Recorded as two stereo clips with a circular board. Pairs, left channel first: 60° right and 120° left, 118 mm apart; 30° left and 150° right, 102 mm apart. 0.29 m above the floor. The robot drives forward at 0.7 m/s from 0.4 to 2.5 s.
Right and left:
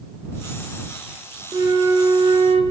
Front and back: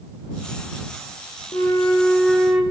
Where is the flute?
65° left, 0.8 m; by 2.6 s 125° left, 0.8 m.